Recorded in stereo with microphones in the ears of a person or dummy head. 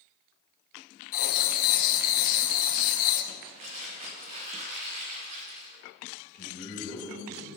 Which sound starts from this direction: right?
Crumpling, at 3.5 s.